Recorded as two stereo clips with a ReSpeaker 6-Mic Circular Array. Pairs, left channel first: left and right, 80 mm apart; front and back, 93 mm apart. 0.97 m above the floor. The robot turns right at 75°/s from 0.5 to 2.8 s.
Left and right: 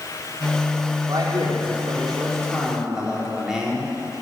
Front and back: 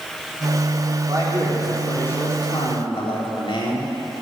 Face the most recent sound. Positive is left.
turn(degrees=-10)